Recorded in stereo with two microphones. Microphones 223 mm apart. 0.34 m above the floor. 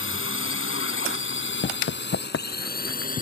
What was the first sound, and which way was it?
A drone, 65° left (ahead or behind).